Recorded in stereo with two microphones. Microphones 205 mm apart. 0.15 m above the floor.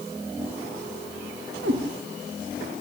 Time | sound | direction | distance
1.6 | a cat meowing | 80° right | 7 m